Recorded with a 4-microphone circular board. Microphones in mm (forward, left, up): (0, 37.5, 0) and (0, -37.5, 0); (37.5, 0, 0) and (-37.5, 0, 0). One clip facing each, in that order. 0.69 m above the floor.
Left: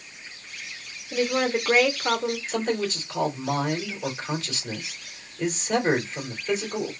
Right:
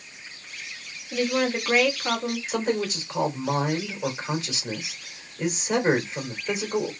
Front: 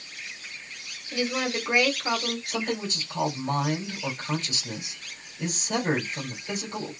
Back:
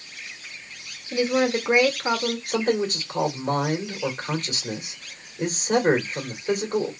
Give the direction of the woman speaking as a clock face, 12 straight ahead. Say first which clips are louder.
Left 1 dB, back 7 dB; 7 o'clock.